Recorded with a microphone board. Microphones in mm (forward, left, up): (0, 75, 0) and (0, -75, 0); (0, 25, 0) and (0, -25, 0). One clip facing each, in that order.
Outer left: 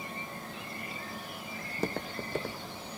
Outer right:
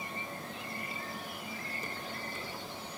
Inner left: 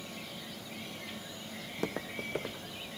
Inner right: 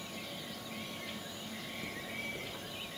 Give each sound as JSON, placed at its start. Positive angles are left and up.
{"t": 1.6, "sound": "footsteps", "side_deg": 70, "distance_m": 0.9}